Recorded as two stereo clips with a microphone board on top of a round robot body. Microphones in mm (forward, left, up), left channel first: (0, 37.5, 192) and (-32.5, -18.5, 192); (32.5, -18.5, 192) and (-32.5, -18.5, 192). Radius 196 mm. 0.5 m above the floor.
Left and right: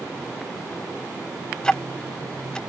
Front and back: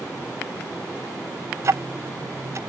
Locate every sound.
1.6 s ticking: 135° left